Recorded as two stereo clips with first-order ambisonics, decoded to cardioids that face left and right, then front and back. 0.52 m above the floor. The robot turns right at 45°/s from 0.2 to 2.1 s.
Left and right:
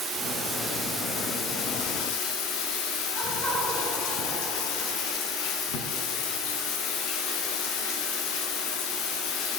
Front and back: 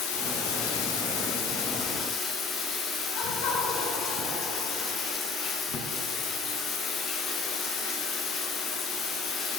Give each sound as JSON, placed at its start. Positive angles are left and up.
{"t": 0.0, "sound": "running water", "azimuth_deg": -25, "distance_m": 2.5}
{"t": 3.1, "sound": "laughter", "azimuth_deg": 10, "distance_m": 4.0}